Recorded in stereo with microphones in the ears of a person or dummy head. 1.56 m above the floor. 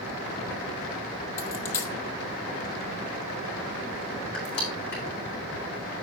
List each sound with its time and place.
1.4 s a dropped coin: 15° left (ahead or behind), 1.5 m
4.3 s crushing: 55° left (ahead or behind), 3.5 m